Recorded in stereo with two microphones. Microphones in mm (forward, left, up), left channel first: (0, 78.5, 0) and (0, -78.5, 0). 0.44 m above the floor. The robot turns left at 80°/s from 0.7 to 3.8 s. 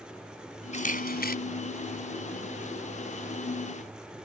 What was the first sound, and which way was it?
A camera shutter, 130° left.